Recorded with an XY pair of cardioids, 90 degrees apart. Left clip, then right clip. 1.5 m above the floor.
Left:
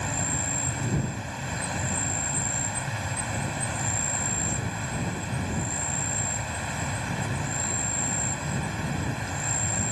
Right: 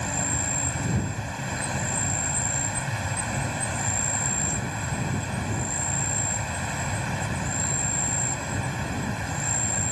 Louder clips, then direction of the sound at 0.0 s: Right 1 dB; 15° right.